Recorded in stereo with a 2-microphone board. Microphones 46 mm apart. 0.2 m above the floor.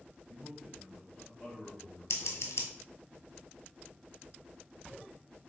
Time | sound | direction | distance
0.3 | a man speaking | 10° right (ahead or behind) | 1.5 m
2.1 | scissors | 80° left | 0.7 m